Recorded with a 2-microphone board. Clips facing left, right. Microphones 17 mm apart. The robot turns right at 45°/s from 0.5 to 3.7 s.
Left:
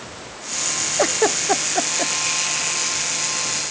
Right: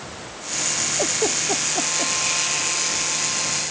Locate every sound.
1.0 s a giggle: 85° left; by 2.1 s 40° left (ahead or behind)